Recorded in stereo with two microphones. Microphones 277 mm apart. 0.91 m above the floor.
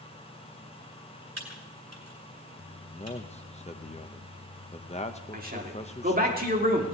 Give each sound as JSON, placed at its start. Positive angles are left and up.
{"t": 1.4, "sound": "typing on a keyboard", "side_deg": -60, "distance_m": 3.0}
{"t": 2.9, "sound": "a man speaking", "side_deg": 20, "distance_m": 0.8}
{"t": 5.3, "sound": "a man speaking", "side_deg": -30, "distance_m": 2.5}